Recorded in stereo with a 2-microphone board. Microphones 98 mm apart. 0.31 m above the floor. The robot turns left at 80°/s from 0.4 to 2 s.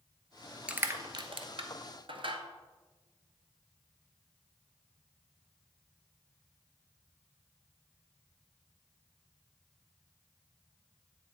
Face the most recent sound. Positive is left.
turn(degrees=-65)  # may be behind; listen again after turning